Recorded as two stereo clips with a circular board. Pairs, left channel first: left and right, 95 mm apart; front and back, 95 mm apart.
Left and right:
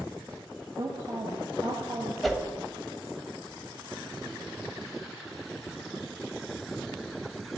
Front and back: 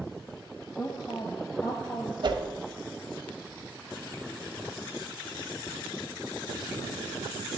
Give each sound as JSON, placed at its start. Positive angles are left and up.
{"t": 0.8, "sound": "a woman speaking", "azimuth_deg": -50, "distance_m": 1.5}
{"t": 2.2, "sound": "a whoosh", "azimuth_deg": 180, "distance_m": 1.2}